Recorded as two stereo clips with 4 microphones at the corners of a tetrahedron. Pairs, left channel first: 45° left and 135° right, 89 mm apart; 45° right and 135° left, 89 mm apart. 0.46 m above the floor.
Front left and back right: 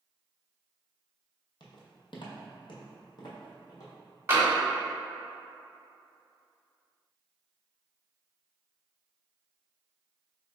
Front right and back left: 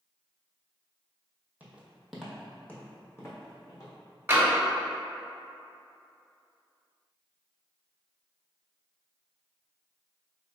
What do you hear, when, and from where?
1.6 s footsteps: 65° left, 0.9 m; by 3.9 s straight ahead, 1.4 m
4.3 s tapping: straight behind, 1.2 m